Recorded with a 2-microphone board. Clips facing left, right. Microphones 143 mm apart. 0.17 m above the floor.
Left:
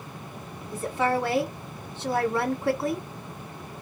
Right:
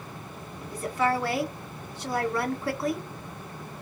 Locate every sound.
0.7 s a woman speaking: 25° left (ahead or behind), 1.3 m